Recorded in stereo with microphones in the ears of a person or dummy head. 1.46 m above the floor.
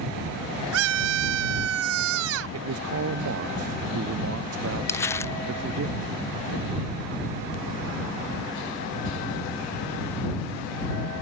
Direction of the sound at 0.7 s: 85° right.